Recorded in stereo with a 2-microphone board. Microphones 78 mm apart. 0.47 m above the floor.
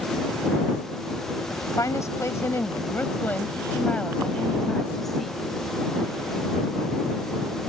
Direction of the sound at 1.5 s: 50° left (ahead or behind).